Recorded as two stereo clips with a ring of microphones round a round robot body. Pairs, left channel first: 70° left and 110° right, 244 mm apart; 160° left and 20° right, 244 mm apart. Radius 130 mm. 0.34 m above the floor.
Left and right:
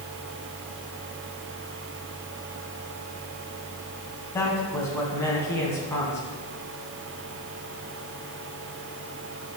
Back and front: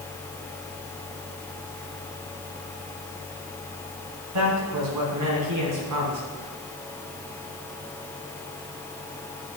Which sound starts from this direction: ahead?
A man speaking, at 4.3 s.